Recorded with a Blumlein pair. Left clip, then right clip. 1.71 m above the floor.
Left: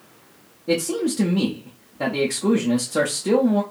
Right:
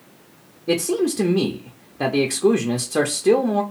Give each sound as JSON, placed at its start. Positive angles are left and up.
{"t": 0.7, "sound": "a man speaking", "azimuth_deg": -10, "distance_m": 0.6}